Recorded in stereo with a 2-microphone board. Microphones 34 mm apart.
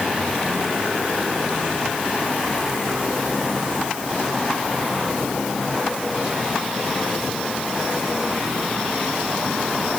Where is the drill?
No drill in this recording.